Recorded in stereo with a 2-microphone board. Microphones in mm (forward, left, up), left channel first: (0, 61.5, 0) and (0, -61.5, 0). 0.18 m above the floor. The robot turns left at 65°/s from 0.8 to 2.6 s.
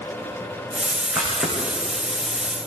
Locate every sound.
1.1 s a camera shutter: 10° right (ahead or behind), 9 m; by 1.6 s 20° left (ahead or behind), 9 m